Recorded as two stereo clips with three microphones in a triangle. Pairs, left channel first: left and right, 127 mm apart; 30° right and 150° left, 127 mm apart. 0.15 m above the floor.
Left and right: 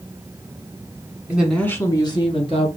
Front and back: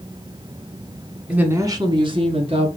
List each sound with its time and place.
1.3 s a woman speaking: 140° right, 1.2 m; by 2.7 s 120° left, 2.5 m